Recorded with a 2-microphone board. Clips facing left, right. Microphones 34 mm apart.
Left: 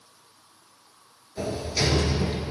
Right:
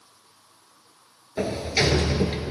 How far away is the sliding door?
About 0.9 m.